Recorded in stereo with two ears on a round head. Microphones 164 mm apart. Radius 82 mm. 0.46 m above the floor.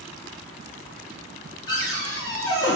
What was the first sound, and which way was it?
A cupboard door, 20° left (ahead or behind).